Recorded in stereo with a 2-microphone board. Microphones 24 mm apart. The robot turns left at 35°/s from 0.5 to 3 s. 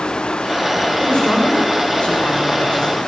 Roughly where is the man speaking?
Left.